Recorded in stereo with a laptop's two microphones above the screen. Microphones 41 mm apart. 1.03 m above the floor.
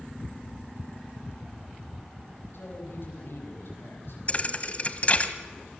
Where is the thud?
35° left (ahead or behind), 1.7 m.